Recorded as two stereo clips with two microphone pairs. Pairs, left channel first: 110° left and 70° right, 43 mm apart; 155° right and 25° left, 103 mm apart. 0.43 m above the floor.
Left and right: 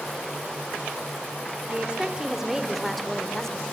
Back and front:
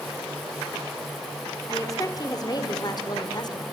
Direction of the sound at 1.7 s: 120° right.